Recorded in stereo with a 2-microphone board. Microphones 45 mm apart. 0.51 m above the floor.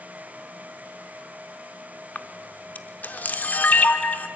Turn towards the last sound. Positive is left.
turn(degrees=40)  # may be behind; listen again after turning